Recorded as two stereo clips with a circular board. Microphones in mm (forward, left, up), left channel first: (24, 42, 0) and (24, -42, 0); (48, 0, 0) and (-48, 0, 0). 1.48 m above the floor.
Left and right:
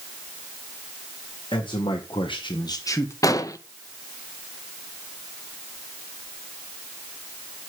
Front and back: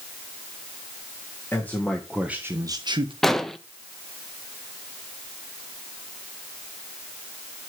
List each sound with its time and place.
1.5 s a man speaking: 65° left, 1.7 m; by 3.1 s 150° left, 1.5 m
3.2 s an explosion: 85° left, 0.7 m